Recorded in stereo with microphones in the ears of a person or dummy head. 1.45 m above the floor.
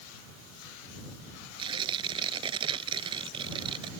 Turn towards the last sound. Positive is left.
turn(degrees=-30)  # may be behind; listen again after turning